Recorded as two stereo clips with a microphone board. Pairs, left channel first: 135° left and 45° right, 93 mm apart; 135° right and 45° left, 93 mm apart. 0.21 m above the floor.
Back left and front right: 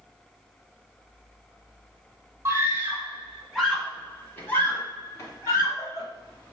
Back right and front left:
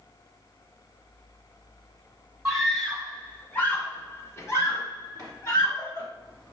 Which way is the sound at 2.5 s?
35° right.